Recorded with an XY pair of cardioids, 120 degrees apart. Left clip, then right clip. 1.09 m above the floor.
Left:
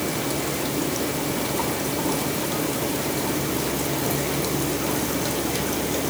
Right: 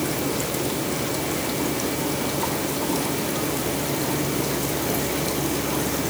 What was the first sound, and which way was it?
Only background noise.